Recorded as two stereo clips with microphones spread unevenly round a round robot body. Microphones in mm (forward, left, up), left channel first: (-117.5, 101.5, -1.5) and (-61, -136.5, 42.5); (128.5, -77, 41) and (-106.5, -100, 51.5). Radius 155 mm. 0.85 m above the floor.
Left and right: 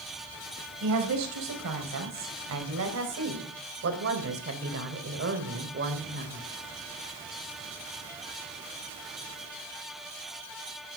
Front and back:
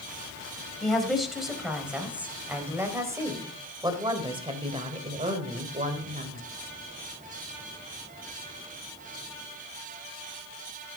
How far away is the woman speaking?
About 5 m.